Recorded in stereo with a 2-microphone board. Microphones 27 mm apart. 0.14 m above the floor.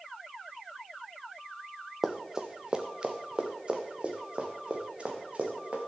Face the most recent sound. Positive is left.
turn(degrees=-40)  # may be behind; listen again after turning